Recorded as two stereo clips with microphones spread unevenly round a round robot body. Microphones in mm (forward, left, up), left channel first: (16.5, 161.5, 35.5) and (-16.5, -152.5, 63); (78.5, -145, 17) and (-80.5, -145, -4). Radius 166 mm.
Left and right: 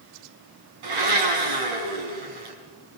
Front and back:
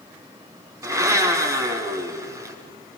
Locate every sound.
0.8 s a blender: 110° right, 5.5 m